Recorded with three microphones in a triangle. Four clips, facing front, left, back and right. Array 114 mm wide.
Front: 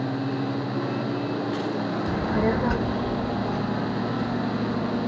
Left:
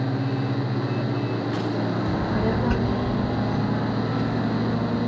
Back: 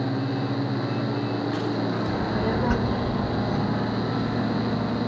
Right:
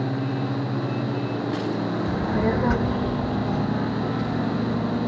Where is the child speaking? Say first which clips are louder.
Right 1 dB, front 2 dB; straight ahead, 1.1 m; by 5.0 s 150° right, 4 m.